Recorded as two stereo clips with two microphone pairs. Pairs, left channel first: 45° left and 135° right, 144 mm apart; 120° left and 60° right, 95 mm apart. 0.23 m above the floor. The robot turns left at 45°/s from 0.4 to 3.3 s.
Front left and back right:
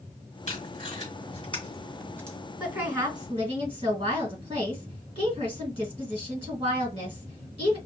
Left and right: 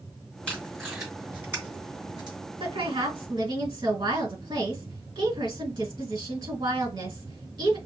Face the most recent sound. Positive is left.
turn(degrees=-85)